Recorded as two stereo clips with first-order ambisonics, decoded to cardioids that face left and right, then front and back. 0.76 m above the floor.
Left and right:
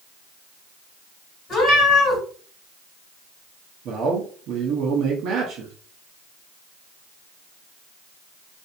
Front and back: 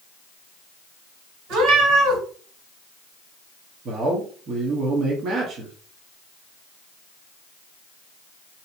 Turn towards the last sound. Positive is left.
turn(degrees=-125)